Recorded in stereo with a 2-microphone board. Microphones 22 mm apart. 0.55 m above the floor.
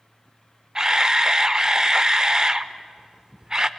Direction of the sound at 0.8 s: 30° right (ahead or behind).